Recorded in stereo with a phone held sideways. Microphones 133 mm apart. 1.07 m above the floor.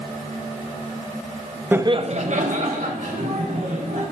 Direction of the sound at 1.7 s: 10° right (ahead or behind).